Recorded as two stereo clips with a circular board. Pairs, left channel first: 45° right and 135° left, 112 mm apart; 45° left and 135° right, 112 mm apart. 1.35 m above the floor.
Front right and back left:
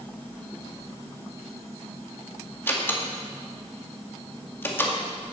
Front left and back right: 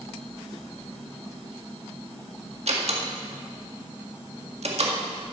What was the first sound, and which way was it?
A door slam, 115° right.